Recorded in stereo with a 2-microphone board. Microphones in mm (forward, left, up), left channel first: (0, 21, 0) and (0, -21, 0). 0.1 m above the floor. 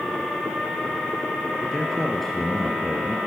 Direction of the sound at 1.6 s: 5° left (ahead or behind).